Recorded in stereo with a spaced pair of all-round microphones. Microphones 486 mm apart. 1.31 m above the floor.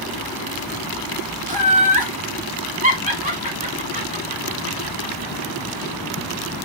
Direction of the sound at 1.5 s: 15° right (ahead or behind).